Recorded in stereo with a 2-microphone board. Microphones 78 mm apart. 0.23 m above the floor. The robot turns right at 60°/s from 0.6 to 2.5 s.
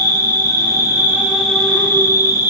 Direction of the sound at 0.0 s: 50° right.